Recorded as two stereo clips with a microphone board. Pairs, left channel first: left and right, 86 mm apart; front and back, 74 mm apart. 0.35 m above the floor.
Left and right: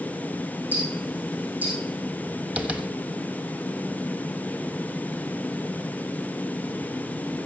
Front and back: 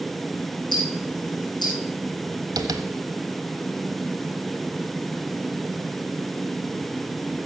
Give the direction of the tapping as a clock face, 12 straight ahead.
5 o'clock.